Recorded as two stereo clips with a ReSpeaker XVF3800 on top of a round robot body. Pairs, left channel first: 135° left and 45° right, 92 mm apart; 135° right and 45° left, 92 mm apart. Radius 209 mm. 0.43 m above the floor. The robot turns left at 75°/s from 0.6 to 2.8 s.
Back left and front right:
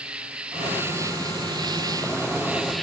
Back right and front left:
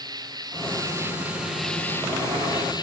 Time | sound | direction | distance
0.0 | an insect | 30° left | 2 m